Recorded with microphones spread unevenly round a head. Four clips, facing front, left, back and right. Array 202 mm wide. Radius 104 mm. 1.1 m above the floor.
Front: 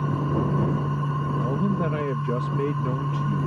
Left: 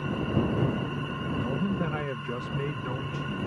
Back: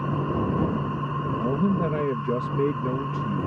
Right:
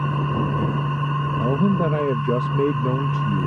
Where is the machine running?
60° right.